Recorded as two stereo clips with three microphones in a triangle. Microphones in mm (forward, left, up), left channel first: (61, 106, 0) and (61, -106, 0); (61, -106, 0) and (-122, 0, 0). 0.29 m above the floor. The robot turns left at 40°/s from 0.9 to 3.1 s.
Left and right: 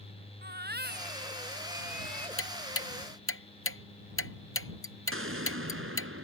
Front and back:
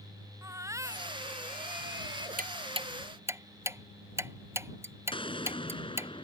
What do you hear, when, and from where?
0.4 s a baby crying: 135° right; by 2.3 s 170° left
2.4 s ticking: 100° left; by 6.1 s 70° left
5.1 s an explosion: 95° right